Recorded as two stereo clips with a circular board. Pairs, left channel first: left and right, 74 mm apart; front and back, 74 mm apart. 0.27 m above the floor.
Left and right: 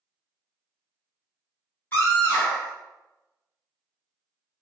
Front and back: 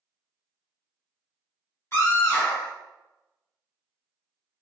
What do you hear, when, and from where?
1.9 s a scream: 40° left, 1.4 m